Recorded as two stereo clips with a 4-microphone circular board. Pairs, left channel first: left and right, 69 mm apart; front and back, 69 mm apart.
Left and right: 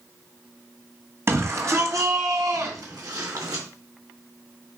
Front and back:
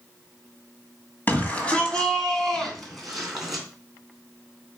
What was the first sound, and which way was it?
A shout, 60° right.